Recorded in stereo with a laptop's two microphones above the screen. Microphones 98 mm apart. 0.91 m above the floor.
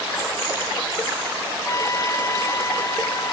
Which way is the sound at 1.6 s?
35° left (ahead or behind).